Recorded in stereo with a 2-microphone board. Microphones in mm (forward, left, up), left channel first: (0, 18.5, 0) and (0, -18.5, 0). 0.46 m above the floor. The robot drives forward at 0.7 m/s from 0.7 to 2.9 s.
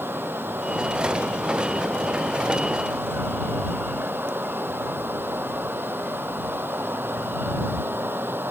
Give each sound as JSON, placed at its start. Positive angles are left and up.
{"t": 0.0, "sound": "running water", "side_deg": -80}